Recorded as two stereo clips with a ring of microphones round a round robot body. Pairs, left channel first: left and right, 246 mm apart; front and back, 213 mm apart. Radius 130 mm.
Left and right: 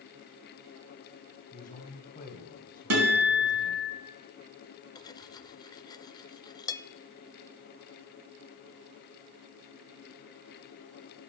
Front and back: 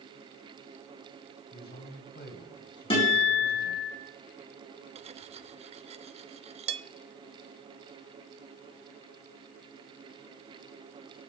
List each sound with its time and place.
1.5 s a man speaking: 35° left, 2.5 m
2.9 s a guitar: 70° right, 3.5 m
5.0 s cutlery clinking: 150° left, 0.6 m